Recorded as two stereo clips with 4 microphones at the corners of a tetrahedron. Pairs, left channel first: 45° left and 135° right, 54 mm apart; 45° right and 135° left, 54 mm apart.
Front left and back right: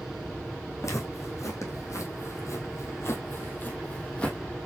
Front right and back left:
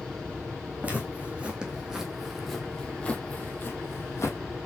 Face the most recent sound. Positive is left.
turn(degrees=-25)